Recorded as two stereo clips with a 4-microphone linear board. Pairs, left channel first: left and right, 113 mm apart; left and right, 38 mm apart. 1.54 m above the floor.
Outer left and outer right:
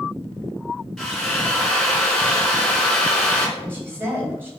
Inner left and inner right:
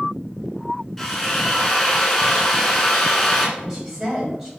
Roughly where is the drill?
Centre.